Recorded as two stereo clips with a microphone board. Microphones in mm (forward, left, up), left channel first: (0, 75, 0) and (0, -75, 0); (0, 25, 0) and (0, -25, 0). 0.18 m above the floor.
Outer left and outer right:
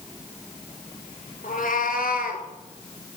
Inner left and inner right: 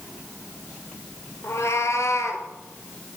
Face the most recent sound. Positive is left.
turn(degrees=70)  # may be behind; listen again after turning